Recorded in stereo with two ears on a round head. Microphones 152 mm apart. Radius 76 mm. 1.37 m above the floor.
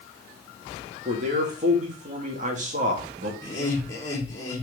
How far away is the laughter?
About 4 m.